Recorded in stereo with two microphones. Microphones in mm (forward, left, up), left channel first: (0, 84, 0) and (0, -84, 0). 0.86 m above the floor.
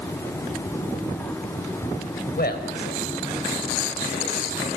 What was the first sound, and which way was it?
A man speaking, 65° left (ahead or behind).